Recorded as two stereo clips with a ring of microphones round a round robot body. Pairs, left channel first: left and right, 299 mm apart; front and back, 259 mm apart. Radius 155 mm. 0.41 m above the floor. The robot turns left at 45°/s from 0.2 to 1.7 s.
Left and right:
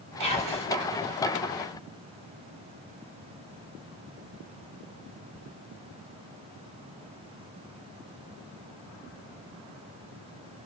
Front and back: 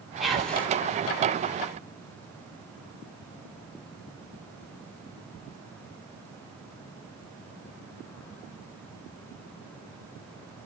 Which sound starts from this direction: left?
Whispering, at 0.2 s.